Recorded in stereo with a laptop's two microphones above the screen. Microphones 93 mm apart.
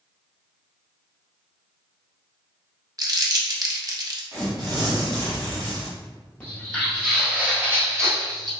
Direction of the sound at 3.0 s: 40° right (ahead or behind).